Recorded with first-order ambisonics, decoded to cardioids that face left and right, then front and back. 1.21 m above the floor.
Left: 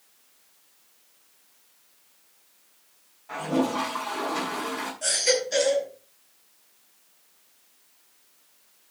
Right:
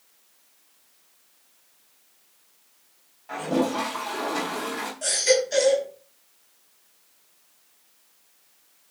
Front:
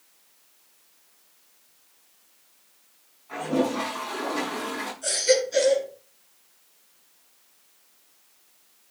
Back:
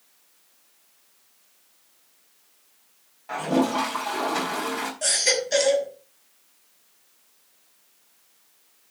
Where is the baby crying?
175° right, 5.5 m.